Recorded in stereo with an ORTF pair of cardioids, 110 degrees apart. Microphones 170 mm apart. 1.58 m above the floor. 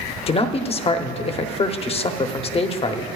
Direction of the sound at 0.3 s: 35° left.